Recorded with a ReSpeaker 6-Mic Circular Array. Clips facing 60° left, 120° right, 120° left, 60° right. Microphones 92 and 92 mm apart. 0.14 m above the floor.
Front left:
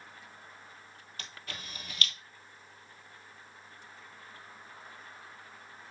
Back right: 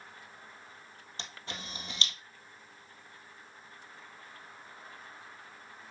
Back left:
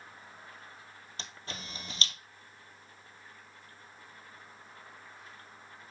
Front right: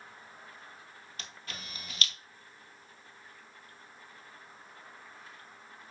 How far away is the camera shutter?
About 1.3 m.